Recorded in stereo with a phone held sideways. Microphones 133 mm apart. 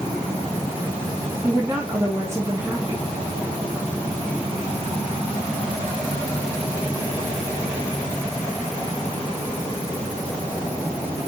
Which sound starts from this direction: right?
A woman speaking, at 1.4 s.